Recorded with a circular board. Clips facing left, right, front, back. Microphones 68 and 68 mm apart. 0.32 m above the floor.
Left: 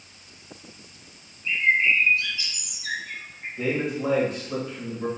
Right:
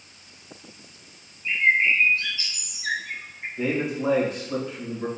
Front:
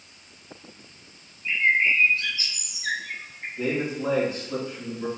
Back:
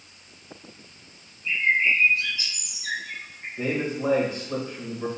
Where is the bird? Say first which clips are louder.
Right 1 dB, front 1 dB; 40° right, 0.8 m.